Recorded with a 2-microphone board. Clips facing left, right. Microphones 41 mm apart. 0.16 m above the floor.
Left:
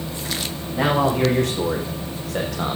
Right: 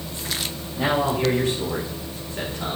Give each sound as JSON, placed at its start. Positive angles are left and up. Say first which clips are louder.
{"t": 0.7, "sound": "a man speaking", "louder": "left 3 dB", "side_deg": 60, "distance_m": 7.5}